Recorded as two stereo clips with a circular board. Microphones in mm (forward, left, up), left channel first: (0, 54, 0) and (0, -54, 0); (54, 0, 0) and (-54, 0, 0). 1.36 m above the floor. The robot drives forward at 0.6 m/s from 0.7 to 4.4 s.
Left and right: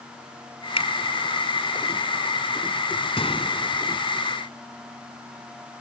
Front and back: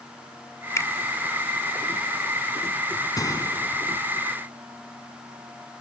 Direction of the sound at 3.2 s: 55° left.